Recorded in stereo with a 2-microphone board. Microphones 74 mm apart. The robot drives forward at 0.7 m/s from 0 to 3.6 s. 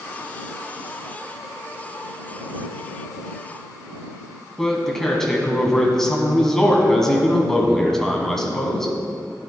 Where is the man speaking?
5° left (ahead or behind), 1.3 m.